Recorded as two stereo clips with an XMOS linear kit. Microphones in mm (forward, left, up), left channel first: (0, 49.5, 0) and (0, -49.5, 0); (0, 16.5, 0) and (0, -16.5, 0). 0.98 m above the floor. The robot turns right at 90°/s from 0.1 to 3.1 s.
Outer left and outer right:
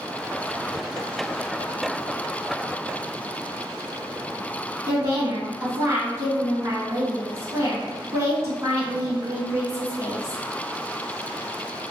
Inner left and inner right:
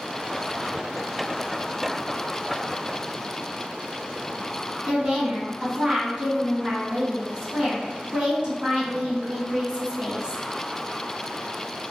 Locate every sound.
4.9 s a woman speaking: 35° right (ahead or behind), 1.8 m